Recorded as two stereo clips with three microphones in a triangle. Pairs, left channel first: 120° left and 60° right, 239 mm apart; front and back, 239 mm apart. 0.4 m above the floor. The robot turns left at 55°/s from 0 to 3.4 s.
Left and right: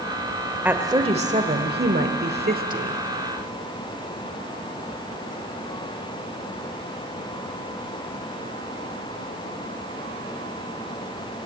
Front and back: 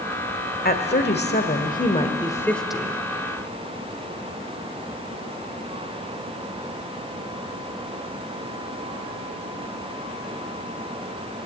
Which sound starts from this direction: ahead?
A woman speaking, at 0.7 s.